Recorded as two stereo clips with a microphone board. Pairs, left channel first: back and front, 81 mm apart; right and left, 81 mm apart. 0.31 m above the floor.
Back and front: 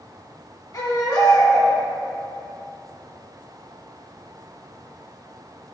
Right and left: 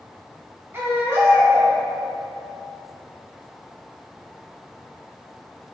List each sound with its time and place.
0.7 s a baby crying: 150° left, 2.0 m